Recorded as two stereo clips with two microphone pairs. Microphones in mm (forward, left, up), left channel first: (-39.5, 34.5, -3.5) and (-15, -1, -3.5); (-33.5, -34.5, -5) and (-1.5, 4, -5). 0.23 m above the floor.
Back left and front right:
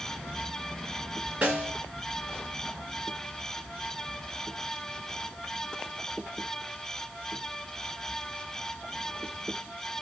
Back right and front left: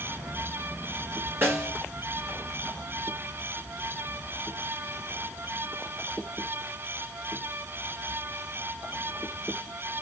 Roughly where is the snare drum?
Ahead.